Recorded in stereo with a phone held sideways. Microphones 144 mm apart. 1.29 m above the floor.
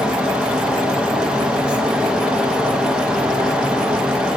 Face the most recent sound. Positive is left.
turn(degrees=-5)  # may be behind; listen again after turning